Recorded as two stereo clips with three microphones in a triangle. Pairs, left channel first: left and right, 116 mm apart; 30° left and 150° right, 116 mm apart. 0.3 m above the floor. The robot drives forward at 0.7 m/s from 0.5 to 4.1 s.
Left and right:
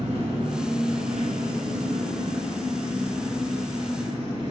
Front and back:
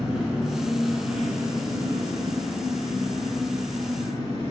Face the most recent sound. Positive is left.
turn(degrees=-135)